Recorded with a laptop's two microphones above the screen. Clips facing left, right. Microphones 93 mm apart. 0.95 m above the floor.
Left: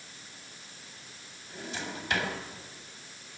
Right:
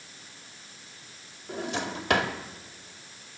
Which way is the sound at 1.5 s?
70° right (ahead or behind).